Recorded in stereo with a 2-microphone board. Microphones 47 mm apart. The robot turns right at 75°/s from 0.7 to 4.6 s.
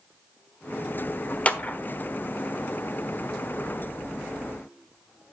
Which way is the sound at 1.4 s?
30° left (ahead or behind).